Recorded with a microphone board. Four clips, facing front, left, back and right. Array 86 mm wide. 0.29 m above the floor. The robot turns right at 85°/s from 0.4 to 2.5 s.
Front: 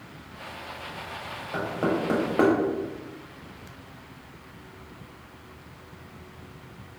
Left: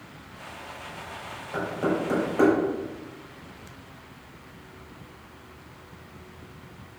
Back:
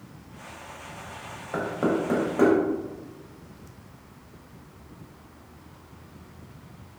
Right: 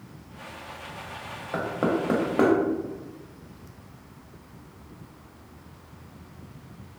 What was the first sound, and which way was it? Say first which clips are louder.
Knocking: right 1 dB, back 1 dB; 120° right.